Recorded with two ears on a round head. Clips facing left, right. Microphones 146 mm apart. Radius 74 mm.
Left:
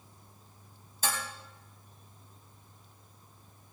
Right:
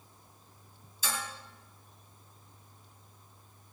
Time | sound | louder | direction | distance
1.0 | dishes clattering | left 3 dB | 45° left (ahead or behind) | 3.5 m